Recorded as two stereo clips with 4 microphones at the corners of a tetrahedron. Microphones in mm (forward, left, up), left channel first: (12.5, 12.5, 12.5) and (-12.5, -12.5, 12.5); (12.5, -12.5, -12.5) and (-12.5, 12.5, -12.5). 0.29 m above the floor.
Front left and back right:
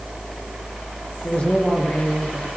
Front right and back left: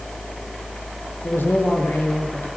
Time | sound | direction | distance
1.2 | a man speaking | 20° right | 7 m